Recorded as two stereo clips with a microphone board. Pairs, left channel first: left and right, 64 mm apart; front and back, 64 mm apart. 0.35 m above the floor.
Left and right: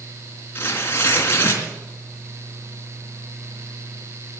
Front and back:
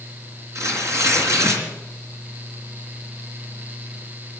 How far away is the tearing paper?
About 3.5 m.